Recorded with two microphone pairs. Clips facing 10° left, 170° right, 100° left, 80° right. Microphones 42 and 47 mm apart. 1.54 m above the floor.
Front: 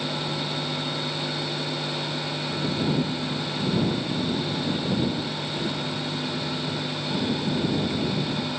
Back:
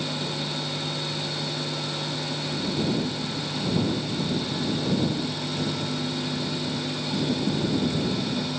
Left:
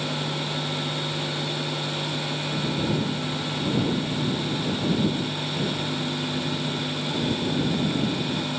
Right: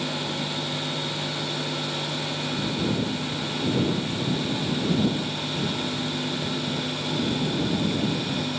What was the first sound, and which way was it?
Only background noise.